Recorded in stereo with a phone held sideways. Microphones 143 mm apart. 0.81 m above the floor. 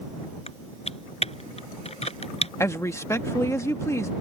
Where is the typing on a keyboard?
45° left (ahead or behind).